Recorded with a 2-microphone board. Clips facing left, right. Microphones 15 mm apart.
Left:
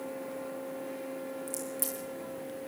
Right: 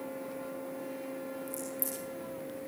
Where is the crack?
55° left (ahead or behind), 6.5 m.